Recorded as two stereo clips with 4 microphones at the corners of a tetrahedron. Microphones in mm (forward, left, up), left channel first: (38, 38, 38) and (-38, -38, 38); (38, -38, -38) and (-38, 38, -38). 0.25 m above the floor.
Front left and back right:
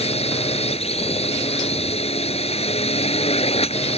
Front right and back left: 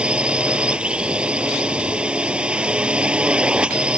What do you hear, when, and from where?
0.0 s a drone: 55° left